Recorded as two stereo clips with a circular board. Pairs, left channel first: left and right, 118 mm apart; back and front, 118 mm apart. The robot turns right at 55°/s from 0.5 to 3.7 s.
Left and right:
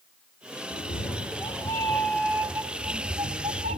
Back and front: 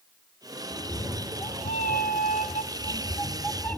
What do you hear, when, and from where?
0.7 s a cat meowing: 100° left, 0.7 m; by 3.8 s 95° right, 0.7 m